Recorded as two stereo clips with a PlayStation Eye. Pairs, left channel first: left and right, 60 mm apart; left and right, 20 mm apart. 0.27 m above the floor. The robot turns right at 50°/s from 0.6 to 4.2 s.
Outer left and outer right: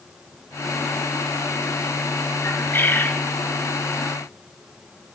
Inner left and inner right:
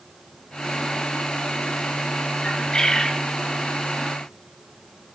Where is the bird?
90° left, 1.2 m; by 3.2 s 130° left, 1.2 m.